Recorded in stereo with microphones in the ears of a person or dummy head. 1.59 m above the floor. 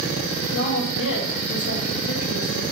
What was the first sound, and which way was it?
A woman speaking, 75° left (ahead or behind).